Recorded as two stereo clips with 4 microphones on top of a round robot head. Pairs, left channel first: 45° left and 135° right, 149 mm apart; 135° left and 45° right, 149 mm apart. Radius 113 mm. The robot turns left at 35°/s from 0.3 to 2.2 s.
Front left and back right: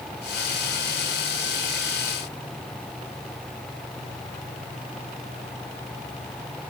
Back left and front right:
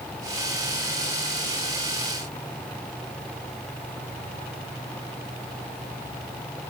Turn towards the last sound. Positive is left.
No sound to turn to.